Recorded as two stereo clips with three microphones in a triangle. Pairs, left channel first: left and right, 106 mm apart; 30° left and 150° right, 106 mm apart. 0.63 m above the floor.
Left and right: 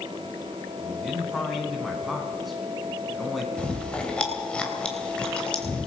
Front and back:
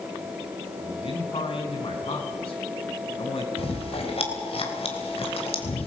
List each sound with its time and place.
0.8 s a man speaking: straight ahead, 6 m
3.6 s chewing: 10° left, 3 m